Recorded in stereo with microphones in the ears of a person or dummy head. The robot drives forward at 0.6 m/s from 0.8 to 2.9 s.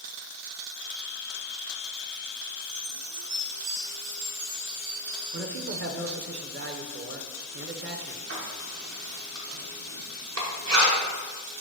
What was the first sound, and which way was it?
A chime, 80° right.